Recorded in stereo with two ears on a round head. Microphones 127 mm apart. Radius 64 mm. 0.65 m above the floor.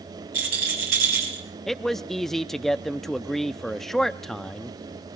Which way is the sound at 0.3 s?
80° right.